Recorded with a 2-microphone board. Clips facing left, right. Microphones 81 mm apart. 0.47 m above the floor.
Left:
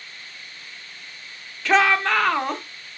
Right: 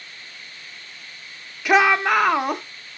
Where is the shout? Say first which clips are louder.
Right 2 dB; 15° right (ahead or behind), 0.7 m.